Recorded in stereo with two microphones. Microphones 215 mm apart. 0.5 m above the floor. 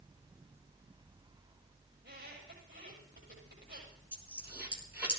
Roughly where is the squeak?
Right.